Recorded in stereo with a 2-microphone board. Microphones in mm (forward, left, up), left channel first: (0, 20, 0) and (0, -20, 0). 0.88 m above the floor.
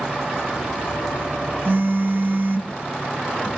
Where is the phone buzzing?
55° right (ahead or behind), 1.3 m.